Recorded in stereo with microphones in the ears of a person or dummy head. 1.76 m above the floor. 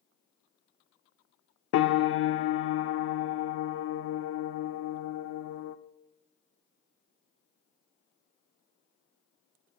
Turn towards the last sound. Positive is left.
turn(degrees=65)  # may be behind; listen again after turning